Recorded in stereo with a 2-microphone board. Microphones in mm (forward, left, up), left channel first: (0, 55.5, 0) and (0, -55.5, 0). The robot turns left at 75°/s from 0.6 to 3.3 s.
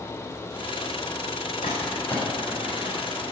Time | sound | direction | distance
1.6 | crumpling | 60° left (ahead or behind) | 7.5 m